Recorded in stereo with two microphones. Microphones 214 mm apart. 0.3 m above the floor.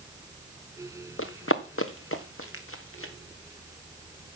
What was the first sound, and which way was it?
Running footsteps, 75° left (ahead or behind).